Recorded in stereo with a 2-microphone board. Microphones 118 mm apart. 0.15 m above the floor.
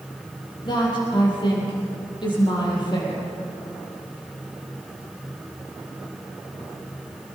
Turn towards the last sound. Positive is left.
turn(degrees=40)  # may be behind; listen again after turning